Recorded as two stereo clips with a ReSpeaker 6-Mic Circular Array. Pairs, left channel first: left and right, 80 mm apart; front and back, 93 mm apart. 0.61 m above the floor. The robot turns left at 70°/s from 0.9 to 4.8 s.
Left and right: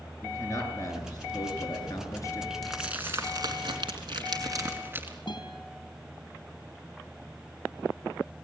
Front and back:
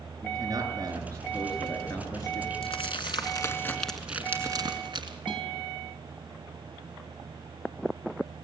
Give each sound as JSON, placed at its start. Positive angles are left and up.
{"t": 0.2, "sound": "a man speaking", "azimuth_deg": 140, "distance_m": 7.5}
{"t": 2.6, "sound": "crumpling", "azimuth_deg": 5, "distance_m": 3.0}
{"t": 5.3, "sound": "a guitar", "azimuth_deg": 90, "distance_m": 4.5}